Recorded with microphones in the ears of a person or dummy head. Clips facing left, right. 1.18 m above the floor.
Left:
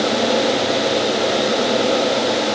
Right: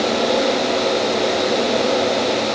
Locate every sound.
Only background noise.